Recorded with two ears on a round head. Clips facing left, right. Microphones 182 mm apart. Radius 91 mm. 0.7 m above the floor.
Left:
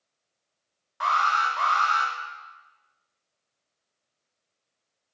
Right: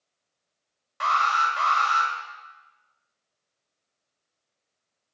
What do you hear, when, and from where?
1.0 s an alarm: 40° right (ahead or behind), 2 m